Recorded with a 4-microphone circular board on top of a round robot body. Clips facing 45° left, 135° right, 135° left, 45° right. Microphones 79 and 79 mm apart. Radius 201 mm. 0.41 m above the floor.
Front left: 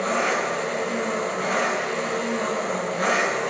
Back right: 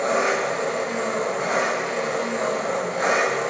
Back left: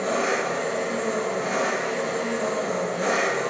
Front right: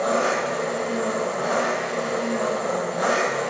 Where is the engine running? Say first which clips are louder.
Back right 2 dB, front right 2 dB; 65° right, 2.5 m.